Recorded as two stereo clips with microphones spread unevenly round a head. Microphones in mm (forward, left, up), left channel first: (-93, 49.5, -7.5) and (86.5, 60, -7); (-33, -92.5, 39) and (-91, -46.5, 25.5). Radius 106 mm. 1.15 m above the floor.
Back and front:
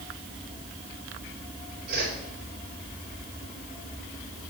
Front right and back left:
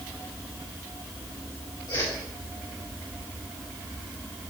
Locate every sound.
1.9 s a whoosh: 30° left, 4.5 m